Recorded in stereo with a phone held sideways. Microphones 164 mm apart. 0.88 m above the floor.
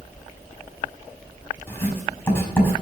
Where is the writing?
10° left (ahead or behind), 5.5 m.